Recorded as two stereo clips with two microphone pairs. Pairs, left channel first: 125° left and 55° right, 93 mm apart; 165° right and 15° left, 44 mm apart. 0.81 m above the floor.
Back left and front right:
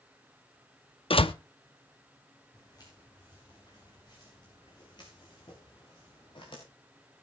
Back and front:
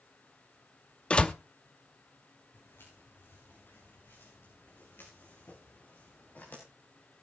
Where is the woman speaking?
I don't hear a woman speaking.